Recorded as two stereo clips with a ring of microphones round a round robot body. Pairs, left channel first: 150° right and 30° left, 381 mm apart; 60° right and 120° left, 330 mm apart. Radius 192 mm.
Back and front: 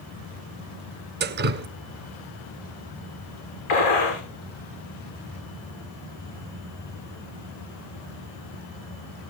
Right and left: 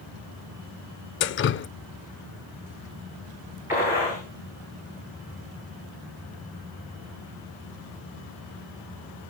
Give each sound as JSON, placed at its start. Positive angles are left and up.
{"t": 1.2, "sound": "dripping", "azimuth_deg": -20, "distance_m": 0.5}
{"t": 3.7, "sound": "a gunshot", "azimuth_deg": -155, "distance_m": 7.5}